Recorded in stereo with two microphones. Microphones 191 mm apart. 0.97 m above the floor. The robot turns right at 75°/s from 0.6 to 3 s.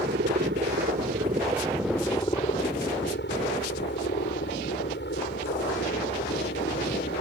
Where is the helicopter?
100° right; by 7.2 s 80° left.